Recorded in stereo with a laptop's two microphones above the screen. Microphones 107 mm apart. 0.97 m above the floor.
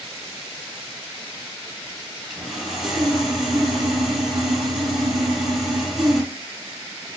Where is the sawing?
Centre (ahead or behind), 5 m.